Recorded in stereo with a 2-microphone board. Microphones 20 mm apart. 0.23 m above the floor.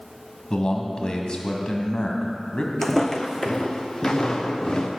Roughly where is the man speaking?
Left.